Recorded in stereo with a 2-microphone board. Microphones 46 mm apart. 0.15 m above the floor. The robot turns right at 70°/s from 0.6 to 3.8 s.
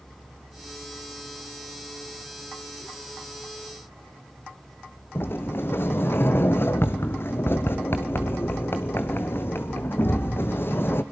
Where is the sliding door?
60° left (ahead or behind), 1.4 m.